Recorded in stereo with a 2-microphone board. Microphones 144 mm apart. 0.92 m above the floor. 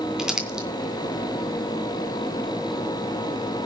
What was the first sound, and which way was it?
Crumpling, 5° right (ahead or behind).